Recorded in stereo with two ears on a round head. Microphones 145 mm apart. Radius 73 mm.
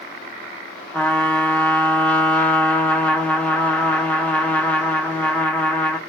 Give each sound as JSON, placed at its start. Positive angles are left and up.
{"t": 0.9, "sound": "a trumpet", "side_deg": 10, "distance_m": 0.5}